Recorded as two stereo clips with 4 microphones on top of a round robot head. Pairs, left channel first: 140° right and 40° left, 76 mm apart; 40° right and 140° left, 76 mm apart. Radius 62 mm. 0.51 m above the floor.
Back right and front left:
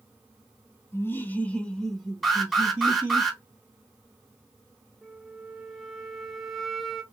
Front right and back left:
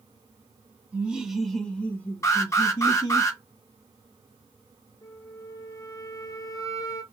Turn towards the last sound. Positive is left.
turn(degrees=-55)